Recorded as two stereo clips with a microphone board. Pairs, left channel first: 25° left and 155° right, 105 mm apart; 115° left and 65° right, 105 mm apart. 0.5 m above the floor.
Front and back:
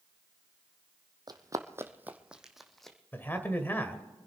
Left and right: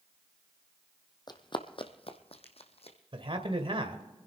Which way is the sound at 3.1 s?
45° right.